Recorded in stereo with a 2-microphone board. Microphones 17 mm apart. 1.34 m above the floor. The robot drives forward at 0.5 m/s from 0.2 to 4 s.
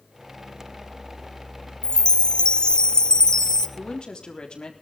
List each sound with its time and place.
1.8 s a chime: 65° left (ahead or behind), 0.7 m; by 3.7 s 35° left (ahead or behind), 1.2 m
3.8 s a woman speaking: 65° left (ahead or behind), 3.5 m